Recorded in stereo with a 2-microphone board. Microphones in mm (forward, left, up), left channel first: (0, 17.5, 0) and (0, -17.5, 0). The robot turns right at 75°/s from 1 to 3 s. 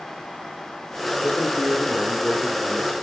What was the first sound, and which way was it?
A man speaking, 95° left.